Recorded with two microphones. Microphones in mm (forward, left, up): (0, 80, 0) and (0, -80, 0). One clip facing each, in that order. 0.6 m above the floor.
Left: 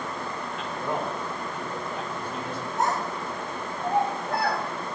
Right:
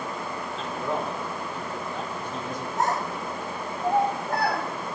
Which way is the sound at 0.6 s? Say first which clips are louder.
Right 1 dB; 15° left (ahead or behind).